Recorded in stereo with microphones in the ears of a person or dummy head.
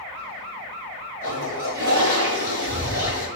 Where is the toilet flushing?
55° right (ahead or behind), 5 m.